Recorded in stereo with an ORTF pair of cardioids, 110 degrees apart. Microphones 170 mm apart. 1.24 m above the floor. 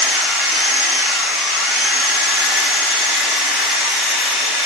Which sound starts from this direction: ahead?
A machine running, at 0.0 s.